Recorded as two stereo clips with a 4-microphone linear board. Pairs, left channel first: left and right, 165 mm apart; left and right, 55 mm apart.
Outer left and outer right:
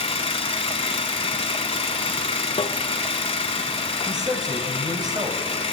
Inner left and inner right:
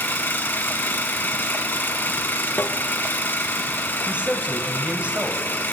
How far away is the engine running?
About 1.0 m.